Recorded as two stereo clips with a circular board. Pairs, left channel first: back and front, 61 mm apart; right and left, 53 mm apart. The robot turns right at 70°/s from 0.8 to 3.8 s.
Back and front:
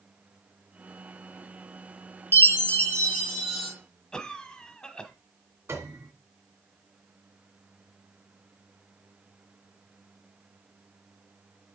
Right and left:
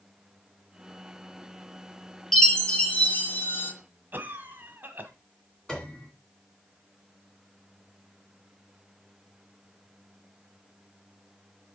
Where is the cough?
110° left, 1.3 m.